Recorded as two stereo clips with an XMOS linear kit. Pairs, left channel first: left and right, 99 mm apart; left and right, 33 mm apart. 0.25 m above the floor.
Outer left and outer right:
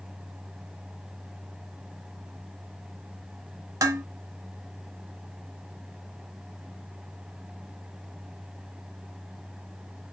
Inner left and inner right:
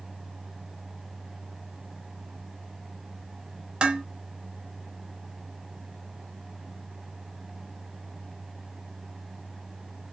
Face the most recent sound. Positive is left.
turn(degrees=-35)  # may be behind; listen again after turning